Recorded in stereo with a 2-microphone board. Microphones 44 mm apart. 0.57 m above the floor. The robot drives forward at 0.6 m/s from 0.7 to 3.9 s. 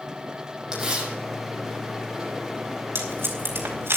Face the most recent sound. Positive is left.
turn(degrees=-75)  # may be behind; listen again after turning